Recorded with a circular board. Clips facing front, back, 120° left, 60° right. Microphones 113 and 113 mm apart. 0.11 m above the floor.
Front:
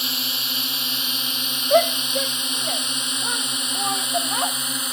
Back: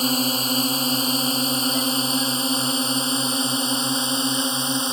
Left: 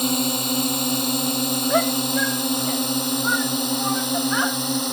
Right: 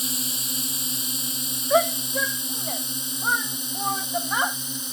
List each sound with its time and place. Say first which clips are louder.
0.0 s a drone: back 11 dB, left 13 dB; 135° left; by 4.9 s 120° left
1.7 s a shout: front 6 dB, right 2 dB; 20° left